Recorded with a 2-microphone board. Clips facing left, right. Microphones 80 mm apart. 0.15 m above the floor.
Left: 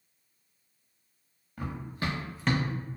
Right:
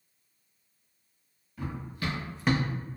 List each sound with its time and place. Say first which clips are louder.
1.6 s running footsteps: left 1 dB; 50° left (ahead or behind), 1.1 m; by 2.7 s 35° right (ahead or behind), 0.5 m